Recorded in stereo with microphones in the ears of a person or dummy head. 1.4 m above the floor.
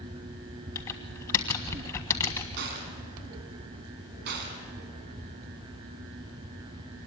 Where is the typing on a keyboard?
20° left (ahead or behind), 1.7 m.